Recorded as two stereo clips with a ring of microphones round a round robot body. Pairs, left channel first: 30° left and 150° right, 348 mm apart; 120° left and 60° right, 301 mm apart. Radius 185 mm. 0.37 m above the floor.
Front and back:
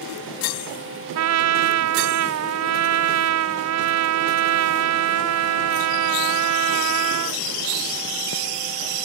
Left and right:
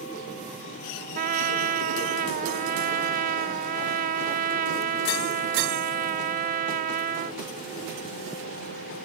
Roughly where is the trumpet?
Behind right.